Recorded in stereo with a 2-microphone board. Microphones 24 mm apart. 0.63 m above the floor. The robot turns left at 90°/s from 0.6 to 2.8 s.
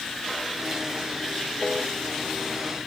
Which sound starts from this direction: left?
A piano, at 1.6 s.